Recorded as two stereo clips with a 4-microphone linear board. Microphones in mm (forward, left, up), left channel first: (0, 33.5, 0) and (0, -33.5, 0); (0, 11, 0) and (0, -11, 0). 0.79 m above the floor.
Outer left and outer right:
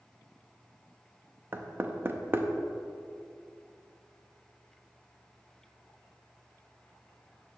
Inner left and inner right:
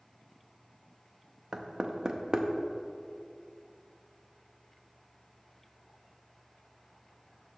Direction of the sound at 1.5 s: 30° right (ahead or behind).